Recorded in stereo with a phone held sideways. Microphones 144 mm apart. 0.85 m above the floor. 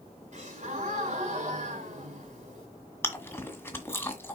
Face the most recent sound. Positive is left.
turn(degrees=15)  # may be behind; listen again after turning